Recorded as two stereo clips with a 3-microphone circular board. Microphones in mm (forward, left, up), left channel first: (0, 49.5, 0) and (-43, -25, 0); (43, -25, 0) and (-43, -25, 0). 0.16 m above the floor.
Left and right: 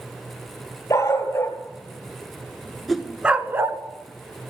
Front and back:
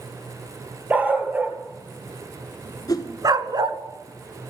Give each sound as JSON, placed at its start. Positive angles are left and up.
{"t": 0.9, "sound": "a dog barking", "azimuth_deg": 110, "distance_m": 1.7}
{"t": 2.9, "sound": "a whoosh", "azimuth_deg": -30, "distance_m": 1.3}